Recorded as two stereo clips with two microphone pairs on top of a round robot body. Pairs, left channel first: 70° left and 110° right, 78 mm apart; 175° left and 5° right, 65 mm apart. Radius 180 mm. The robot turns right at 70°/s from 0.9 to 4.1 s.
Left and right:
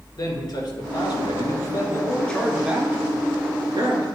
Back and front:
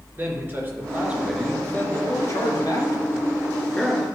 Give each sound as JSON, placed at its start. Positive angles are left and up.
{"t": 0.2, "sound": "a man speaking", "azimuth_deg": 55, "distance_m": 2.5}